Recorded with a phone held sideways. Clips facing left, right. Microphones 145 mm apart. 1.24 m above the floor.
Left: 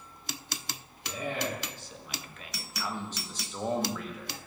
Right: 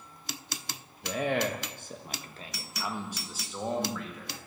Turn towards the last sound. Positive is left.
turn(degrees=10)  # may be behind; listen again after turning